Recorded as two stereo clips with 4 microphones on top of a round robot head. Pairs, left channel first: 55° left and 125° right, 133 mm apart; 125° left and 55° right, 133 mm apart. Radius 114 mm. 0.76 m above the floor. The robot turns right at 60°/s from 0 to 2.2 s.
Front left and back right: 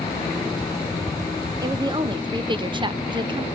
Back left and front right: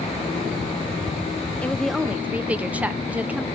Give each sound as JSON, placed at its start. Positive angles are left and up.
{"t": 1.6, "sound": "a woman speaking", "azimuth_deg": -165, "distance_m": 0.8}